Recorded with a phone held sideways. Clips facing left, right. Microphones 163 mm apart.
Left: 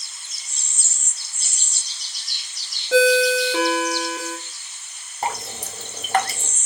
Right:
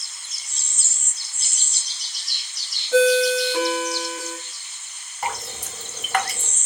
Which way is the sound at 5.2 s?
35° left (ahead or behind).